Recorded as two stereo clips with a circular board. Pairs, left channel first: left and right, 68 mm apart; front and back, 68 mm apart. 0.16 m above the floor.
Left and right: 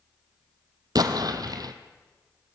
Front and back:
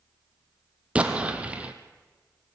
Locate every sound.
0.9 s an explosion: 110° right, 1.6 m